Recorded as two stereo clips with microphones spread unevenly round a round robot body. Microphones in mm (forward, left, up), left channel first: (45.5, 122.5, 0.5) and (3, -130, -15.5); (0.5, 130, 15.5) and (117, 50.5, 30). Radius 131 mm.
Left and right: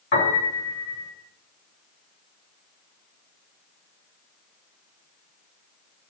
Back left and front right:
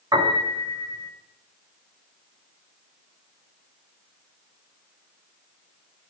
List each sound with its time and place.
0.1 s a piano: 30° left, 4 m